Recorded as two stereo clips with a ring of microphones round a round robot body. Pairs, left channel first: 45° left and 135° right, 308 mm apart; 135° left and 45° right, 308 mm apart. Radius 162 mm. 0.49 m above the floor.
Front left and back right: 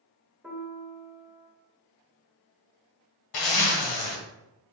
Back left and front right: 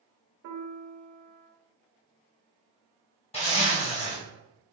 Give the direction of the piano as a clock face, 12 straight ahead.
2 o'clock.